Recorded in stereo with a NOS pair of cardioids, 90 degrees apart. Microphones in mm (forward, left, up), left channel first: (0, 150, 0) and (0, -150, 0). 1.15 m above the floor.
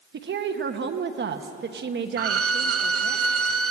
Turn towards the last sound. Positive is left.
turn(degrees=-55)